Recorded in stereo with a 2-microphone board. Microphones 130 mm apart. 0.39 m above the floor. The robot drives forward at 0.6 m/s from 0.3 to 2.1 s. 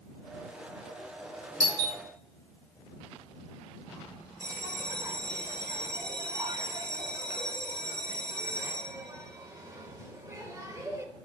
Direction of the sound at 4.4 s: 25° right (ahead or behind).